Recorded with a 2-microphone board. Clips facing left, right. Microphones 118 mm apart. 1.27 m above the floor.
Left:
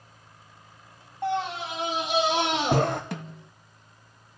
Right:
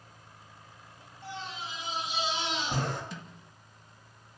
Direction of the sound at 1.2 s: 75° left (ahead or behind).